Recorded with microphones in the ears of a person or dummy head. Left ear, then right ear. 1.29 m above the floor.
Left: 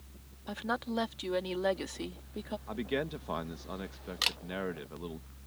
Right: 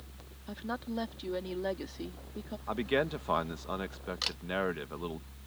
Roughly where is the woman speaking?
Left.